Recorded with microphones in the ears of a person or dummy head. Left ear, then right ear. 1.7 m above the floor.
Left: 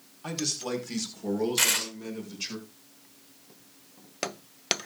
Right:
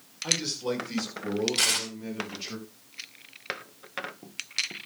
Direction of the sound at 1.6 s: 25° left (ahead or behind).